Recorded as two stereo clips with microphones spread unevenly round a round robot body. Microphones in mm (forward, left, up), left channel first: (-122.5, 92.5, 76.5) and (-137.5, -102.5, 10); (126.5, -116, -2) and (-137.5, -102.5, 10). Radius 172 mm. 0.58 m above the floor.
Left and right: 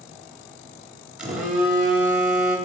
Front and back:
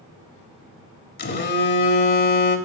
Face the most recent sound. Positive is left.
turn(degrees=-30)